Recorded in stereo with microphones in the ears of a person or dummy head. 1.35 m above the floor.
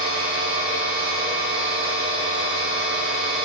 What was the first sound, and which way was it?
A machine running, 55° right (ahead or behind).